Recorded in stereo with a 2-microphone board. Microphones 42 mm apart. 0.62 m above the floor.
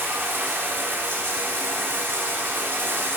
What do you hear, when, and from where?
0.0 s running water: 70° right (ahead or behind), 0.8 m